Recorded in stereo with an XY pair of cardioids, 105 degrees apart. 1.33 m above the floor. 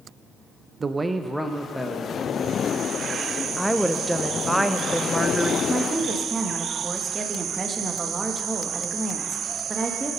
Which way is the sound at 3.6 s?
5° right.